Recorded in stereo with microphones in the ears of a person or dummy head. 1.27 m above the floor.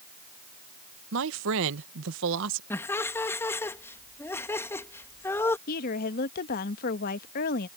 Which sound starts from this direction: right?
A man speaking, at 1.1 s.